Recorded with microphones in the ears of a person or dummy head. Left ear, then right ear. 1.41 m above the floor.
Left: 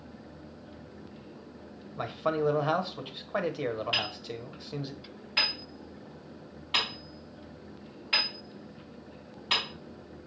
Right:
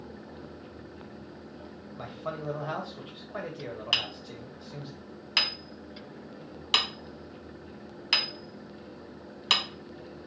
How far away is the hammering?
About 1.1 m.